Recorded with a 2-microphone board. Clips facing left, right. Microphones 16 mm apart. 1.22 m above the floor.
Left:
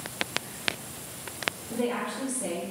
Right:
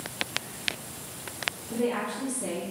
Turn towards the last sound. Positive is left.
turn(degrees=15)  # may be behind; listen again after turning